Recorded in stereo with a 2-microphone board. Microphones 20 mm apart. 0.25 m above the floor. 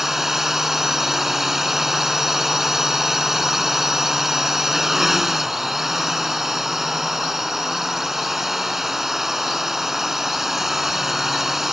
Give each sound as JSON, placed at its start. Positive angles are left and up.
{"t": 0.0, "sound": "a drone", "side_deg": -20}